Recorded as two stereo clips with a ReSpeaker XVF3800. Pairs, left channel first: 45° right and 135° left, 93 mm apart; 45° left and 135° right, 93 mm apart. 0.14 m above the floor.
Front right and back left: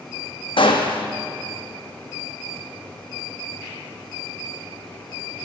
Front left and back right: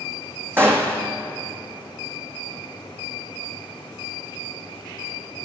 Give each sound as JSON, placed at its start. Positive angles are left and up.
{"t": 0.6, "sound": "a gunshot", "azimuth_deg": -70, "distance_m": 1.4}